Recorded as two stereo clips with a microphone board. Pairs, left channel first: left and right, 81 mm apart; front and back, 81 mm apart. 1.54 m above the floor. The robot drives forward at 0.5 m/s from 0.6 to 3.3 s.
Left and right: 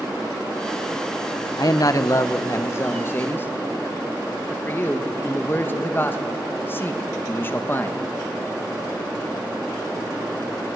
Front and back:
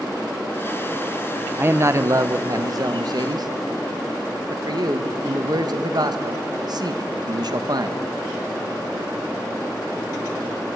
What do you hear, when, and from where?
1.6 s a man speaking: 120° left, 0.8 m; by 8.0 s 150° left, 1.5 m